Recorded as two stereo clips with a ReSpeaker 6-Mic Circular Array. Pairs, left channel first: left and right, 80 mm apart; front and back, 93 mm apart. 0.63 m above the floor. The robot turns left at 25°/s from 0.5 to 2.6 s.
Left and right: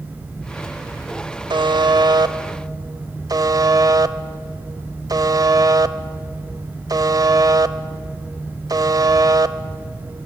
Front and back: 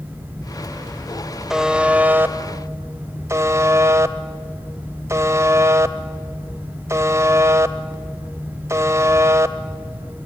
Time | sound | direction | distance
1.5 | a buzzer | 95° right | 0.7 m